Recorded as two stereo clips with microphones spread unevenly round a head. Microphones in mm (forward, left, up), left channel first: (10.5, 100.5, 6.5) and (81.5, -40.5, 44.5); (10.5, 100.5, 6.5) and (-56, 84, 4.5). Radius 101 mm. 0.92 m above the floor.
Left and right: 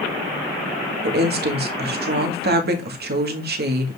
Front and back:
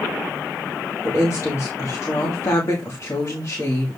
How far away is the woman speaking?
About 1.6 m.